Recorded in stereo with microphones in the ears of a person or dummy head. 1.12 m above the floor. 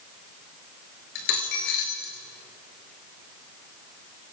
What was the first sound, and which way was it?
A dropped coin, 40° left (ahead or behind).